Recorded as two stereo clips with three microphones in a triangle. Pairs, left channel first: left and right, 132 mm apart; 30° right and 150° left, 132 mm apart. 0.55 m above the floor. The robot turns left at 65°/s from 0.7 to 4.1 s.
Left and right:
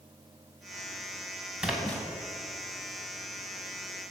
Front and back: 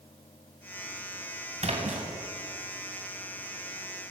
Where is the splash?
170° right, 1.9 m; by 2.0 s 160° left, 1.9 m.